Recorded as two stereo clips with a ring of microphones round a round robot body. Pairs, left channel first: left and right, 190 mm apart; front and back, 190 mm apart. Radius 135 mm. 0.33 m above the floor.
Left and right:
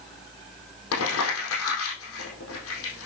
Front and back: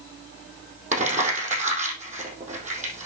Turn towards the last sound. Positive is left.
turn(degrees=125)